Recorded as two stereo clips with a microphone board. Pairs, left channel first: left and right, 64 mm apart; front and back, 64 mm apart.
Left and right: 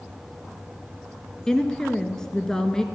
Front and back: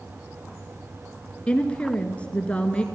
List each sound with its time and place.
1.5 s a woman speaking: 30° left, 1.1 m